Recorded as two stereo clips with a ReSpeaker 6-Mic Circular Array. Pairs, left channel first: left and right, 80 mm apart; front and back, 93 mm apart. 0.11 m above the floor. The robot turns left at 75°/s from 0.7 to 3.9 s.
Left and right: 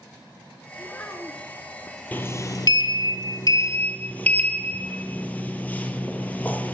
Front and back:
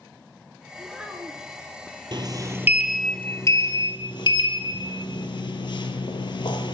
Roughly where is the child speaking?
Behind left.